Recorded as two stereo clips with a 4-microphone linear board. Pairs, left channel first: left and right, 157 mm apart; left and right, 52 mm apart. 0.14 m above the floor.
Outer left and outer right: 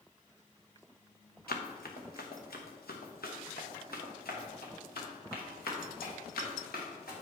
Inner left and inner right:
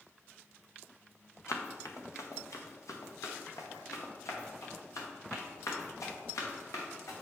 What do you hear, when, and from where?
1.5 s running footsteps: 80° left, 1.6 m